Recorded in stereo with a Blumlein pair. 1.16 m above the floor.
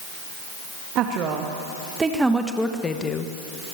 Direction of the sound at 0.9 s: 35° right.